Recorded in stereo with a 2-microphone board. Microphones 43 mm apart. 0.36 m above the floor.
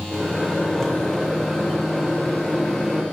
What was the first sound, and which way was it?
A microwave, 10° left (ahead or behind).